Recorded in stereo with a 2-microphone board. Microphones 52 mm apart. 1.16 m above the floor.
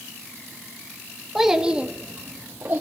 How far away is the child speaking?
About 1.0 m.